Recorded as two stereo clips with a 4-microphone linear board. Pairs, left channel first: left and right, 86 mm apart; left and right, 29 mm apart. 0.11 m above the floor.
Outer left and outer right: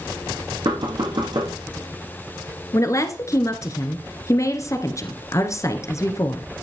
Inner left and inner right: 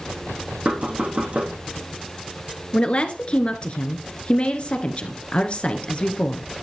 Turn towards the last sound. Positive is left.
turn(degrees=35)  # may be behind; listen again after turning